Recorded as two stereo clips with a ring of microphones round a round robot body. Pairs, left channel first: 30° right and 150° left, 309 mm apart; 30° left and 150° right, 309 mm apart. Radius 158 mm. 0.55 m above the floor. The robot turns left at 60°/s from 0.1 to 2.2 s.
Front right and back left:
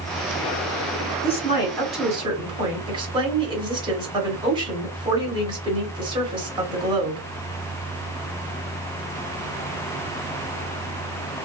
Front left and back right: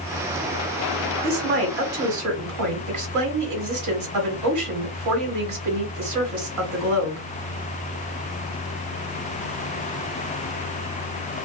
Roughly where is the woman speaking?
Right.